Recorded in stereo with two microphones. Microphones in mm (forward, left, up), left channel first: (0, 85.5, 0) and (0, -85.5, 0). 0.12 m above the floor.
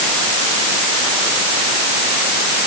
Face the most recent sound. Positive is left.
No sound to turn to.